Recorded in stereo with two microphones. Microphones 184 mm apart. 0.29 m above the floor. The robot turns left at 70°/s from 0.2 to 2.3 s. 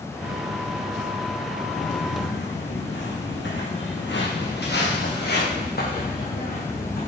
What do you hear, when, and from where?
1.8 s footsteps: 70° left (ahead or behind), 4 m; by 7.1 s 50° left (ahead or behind), 5.5 m